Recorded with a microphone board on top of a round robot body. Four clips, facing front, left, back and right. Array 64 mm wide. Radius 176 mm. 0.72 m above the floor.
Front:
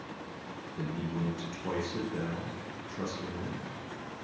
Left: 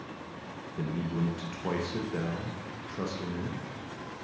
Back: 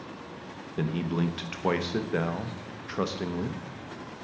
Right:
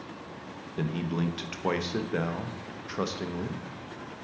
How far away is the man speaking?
About 0.9 m.